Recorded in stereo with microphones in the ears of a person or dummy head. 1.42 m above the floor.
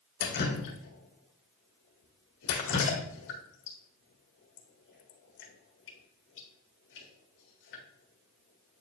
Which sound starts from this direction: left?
Dripping, at 0.2 s.